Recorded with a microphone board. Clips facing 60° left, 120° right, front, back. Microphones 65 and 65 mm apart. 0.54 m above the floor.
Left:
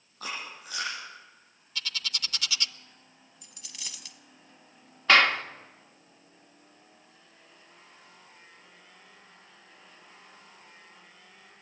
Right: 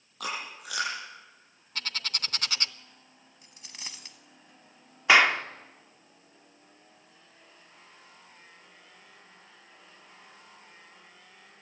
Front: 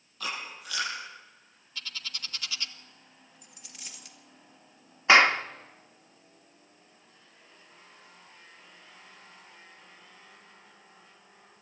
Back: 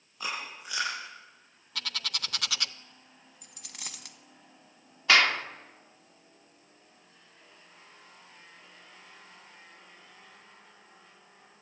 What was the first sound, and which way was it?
Chewing, 110° right.